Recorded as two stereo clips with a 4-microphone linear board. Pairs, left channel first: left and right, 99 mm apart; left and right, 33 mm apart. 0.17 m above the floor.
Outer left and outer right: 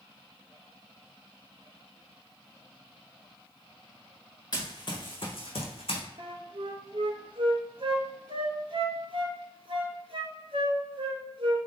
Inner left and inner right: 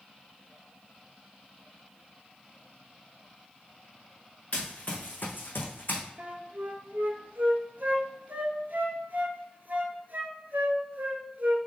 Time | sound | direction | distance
4.5 | running footsteps | 40° left (ahead or behind) | 1.2 m
6.2 | a flute | 65° right (ahead or behind) | 0.6 m